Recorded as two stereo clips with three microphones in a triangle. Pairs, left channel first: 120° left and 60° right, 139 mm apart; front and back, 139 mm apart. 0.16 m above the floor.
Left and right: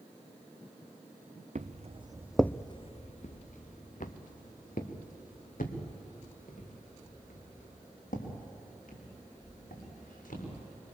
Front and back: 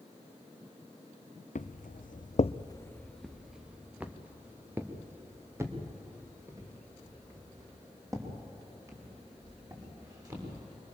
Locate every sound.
1.6 s footsteps: 25° right, 1.0 m; by 10.6 s 115° left, 8.5 m